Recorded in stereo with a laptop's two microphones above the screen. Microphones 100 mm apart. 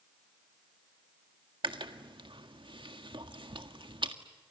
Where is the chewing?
60° right (ahead or behind), 1.7 m.